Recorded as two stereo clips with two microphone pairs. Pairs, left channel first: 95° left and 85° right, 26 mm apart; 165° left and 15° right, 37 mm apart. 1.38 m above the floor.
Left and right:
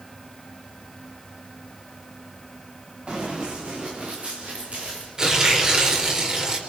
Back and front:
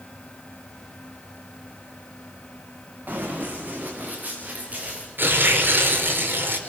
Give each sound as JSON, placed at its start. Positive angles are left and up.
{"t": 3.1, "sound": "running footsteps", "azimuth_deg": -45, "distance_m": 7.5}
{"t": 5.2, "sound": "tearing paper", "azimuth_deg": -25, "distance_m": 4.0}